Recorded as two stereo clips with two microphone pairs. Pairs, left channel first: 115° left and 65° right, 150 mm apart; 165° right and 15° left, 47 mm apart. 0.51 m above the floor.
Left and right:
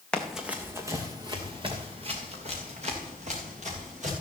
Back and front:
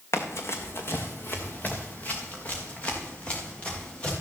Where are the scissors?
No scissors in this recording.